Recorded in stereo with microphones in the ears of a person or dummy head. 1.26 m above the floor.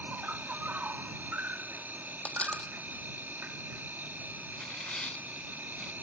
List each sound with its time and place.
0.0 s an insect: centre (ahead or behind)
2.2 s a dropped coin: centre (ahead or behind)
4.5 s tearing paper: centre (ahead or behind)